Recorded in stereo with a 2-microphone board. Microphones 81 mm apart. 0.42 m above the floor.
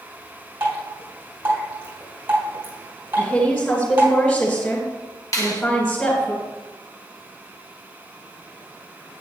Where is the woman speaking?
20° left (ahead or behind), 2.5 m.